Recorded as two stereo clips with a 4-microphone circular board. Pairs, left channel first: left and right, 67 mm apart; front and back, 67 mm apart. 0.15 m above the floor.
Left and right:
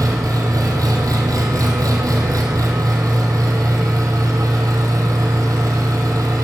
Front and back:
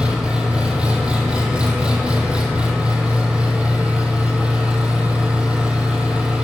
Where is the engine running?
105° right, 2.5 m.